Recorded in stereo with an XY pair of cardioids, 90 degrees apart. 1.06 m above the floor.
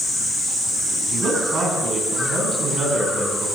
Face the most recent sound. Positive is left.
turn(degrees=-60)